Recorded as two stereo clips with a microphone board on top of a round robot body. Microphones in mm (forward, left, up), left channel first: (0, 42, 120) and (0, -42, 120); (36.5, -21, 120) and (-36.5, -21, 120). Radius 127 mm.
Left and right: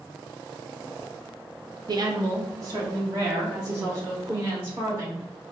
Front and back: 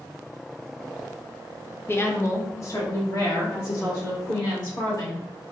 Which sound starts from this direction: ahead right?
A woman speaking, at 1.9 s.